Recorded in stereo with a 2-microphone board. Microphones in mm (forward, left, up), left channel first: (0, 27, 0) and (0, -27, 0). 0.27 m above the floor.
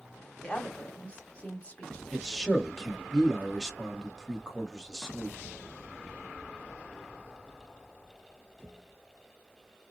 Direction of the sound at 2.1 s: 10° left (ahead or behind).